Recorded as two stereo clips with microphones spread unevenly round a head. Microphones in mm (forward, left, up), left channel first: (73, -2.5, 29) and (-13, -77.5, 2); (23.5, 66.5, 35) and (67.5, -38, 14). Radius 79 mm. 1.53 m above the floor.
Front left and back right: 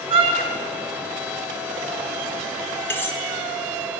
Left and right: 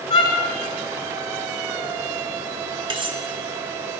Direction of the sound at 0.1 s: 160° left.